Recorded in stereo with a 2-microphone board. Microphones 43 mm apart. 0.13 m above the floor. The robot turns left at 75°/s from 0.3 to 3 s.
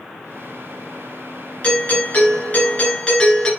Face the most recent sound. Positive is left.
turn(degrees=40)